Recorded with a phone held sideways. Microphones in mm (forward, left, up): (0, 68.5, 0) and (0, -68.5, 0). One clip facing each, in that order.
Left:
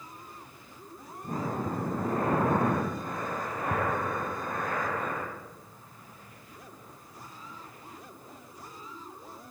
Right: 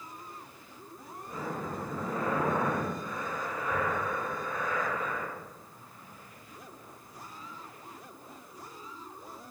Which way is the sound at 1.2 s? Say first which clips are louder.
Left 5 dB; 55° left (ahead or behind).